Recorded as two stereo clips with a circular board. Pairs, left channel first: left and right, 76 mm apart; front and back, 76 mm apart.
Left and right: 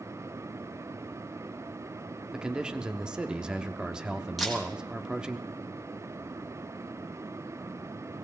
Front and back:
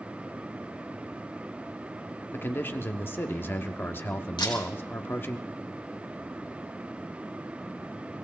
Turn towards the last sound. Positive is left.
turn(degrees=0)